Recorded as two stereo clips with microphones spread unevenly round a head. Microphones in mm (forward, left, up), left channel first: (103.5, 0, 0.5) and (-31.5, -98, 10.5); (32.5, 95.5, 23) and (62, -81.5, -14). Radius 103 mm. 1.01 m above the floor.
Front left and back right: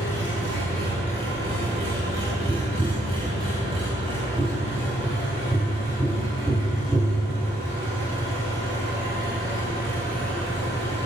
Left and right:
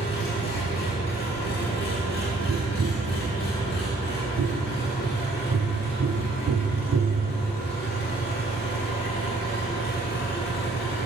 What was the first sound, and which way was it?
An engine running, 145° left.